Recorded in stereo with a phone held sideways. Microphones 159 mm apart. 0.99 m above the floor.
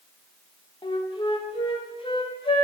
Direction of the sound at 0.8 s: 35° left (ahead or behind).